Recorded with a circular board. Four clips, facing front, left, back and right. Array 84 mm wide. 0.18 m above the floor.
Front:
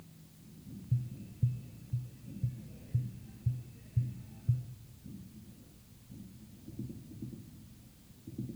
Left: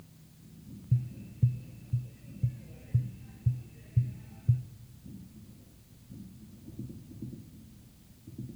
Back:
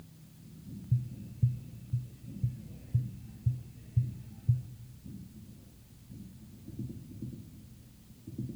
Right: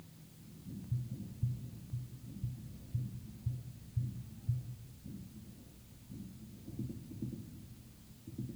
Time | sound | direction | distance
0.9 | tapping | 90° left | 1.0 m